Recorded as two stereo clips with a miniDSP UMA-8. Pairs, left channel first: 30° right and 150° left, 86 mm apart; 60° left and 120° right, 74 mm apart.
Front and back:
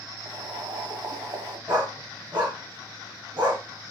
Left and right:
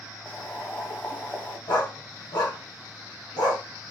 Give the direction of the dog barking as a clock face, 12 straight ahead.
9 o'clock.